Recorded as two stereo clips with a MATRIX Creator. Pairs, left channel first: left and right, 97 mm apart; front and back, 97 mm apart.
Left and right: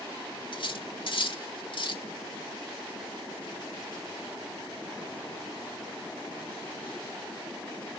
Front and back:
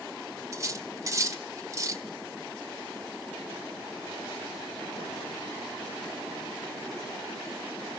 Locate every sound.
0.5 s cutlery clinking: 120° left, 1.8 m